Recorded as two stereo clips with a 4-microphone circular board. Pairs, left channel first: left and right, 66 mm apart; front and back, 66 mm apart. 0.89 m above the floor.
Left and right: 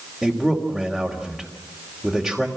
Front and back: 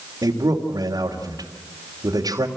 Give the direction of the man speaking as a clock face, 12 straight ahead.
6 o'clock.